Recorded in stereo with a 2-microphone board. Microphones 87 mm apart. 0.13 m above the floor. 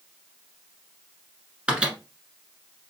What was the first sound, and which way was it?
A microwave, 15° right (ahead or behind).